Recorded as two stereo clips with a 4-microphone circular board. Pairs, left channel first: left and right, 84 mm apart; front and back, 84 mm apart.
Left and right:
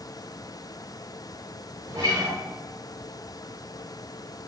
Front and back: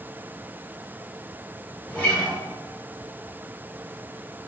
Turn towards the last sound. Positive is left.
turn(degrees=-70)